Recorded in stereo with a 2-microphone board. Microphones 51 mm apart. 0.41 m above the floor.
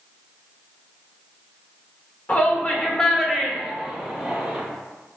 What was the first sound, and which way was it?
A shout, 30° left (ahead or behind).